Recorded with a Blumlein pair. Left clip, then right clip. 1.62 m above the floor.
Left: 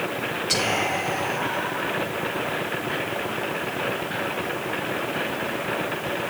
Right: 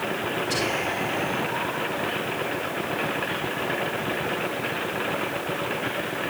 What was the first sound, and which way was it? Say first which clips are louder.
Whispering: left 5 dB; 40° left.